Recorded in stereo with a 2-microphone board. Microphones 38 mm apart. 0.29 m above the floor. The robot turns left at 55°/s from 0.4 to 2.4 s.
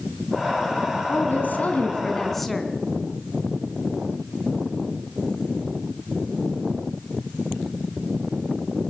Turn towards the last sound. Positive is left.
turn(degrees=0)